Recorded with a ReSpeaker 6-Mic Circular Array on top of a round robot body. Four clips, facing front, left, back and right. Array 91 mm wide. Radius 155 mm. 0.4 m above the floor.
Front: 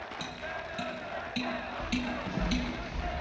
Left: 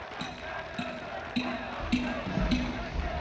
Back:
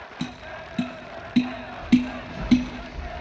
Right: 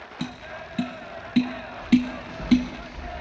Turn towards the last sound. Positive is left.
turn(degrees=55)